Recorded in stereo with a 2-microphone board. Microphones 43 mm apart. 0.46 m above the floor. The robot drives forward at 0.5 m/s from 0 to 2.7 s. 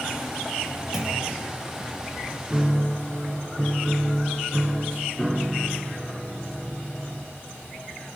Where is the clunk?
10° right (ahead or behind), 6 m.